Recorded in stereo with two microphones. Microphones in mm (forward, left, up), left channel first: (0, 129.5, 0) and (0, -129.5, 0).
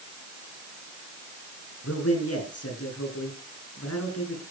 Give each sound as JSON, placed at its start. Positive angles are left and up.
{"t": 1.8, "sound": "a man speaking", "side_deg": 65, "distance_m": 6.0}